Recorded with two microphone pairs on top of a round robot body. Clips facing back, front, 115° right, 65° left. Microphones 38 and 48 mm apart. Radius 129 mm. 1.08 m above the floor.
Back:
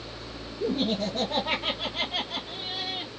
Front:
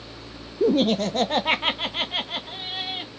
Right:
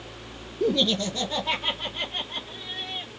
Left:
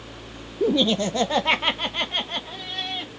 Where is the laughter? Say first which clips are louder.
Front 7 dB, left 3 dB; 10° right, 0.5 m; by 3.1 s 50° left, 1.9 m.